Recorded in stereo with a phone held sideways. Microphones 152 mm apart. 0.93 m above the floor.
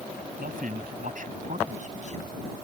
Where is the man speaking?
70° right (ahead or behind); by 2.5 s 45° right (ahead or behind).